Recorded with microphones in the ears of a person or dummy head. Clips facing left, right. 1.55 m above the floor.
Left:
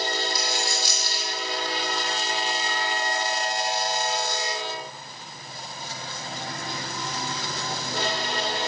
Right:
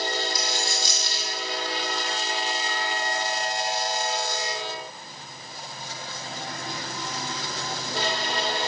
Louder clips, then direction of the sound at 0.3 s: Left 1 dB; 25° right (ahead or behind).